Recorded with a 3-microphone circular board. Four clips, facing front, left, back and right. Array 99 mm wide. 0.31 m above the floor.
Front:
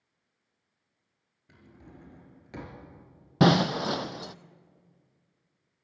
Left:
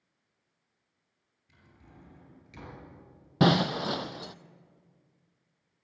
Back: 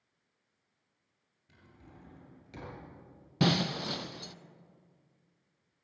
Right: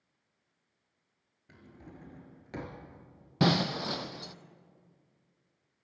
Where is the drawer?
65° right, 4 m.